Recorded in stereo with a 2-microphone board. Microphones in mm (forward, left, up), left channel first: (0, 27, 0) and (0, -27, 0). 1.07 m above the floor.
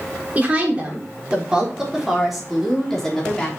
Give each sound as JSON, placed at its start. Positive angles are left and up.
{"t": 0.3, "sound": "a woman speaking", "side_deg": -25, "distance_m": 4.0}